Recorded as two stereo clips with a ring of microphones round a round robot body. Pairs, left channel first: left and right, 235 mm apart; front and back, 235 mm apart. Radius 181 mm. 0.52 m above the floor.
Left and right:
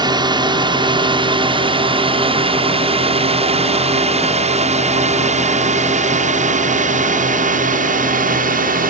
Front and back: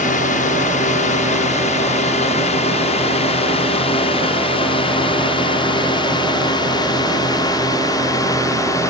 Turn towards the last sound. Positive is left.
turn(degrees=-70)